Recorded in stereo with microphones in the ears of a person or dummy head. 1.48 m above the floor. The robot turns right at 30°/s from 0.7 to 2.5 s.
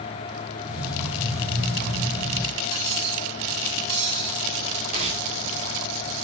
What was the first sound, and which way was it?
Cutlery clinking, 85° right.